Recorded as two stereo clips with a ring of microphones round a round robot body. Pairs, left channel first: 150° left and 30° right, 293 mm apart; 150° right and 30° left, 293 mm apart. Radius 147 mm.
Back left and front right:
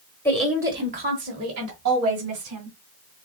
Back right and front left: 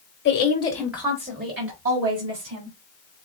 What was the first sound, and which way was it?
A woman speaking, 130° right.